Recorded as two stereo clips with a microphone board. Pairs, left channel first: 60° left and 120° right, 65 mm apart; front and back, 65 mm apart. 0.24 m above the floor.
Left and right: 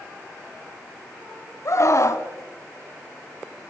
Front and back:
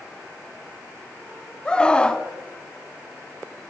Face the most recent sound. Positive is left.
turn(degrees=70)